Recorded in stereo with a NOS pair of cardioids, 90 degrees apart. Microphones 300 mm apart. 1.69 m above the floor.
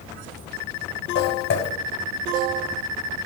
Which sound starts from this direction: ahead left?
Footsteps, at 1.1 s.